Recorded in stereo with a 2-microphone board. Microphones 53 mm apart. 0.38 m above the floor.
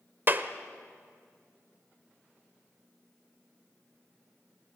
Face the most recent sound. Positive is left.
turn(degrees=-40)  # may be behind; listen again after turning